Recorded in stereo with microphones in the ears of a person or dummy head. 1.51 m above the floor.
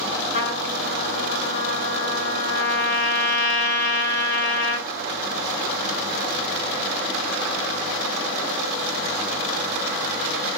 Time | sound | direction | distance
0.3 | a trumpet | 65° left (ahead or behind) | 4 m